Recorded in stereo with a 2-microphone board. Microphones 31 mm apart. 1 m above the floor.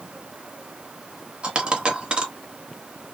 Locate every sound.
1.4 s a dropped coin: 30° right (ahead or behind), 0.9 m